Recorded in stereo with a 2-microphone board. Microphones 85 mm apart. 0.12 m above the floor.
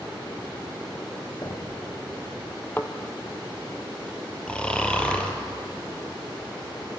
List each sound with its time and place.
1.4 s knocking: 55° left (ahead or behind), 4.5 m
2.8 s a thud: 20° left (ahead or behind), 1.5 m
4.5 s snoring: 10° left (ahead or behind), 2.5 m